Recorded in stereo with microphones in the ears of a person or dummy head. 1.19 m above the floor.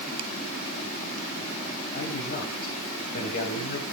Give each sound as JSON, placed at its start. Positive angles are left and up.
{"t": 1.9, "sound": "a man speaking", "side_deg": 55, "distance_m": 7.0}